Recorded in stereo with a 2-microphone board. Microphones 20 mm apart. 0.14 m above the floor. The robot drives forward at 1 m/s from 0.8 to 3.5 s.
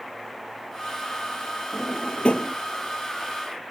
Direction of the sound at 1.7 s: 70° left (ahead or behind).